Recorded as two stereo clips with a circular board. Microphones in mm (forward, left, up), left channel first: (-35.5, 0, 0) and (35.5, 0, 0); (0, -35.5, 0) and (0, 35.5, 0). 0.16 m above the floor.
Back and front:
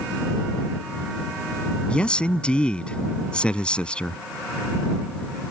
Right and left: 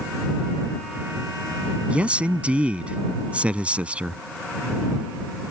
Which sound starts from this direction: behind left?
A man speaking, at 1.9 s.